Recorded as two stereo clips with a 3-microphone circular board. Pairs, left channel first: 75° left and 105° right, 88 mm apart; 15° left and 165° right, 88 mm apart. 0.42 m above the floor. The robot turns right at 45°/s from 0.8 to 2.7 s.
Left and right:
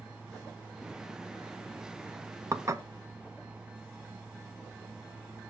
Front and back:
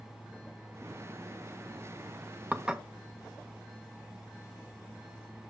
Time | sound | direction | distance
2.5 | dishes clattering | 100° right | 0.6 m